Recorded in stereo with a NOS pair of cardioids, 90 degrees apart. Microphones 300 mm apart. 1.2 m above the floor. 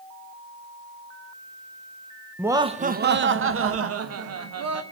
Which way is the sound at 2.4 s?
5° right.